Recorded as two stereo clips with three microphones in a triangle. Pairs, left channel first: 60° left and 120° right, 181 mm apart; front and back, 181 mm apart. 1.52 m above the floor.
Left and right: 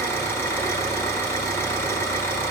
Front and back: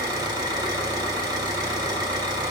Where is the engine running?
125° left, 1.4 m.